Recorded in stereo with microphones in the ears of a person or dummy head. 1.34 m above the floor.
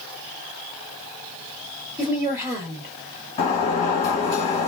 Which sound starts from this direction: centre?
A woman speaking, at 2.0 s.